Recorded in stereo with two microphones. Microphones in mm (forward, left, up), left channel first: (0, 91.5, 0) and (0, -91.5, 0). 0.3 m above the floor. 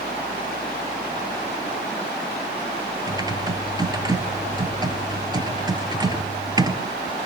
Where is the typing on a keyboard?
20° right (ahead or behind), 1.5 m.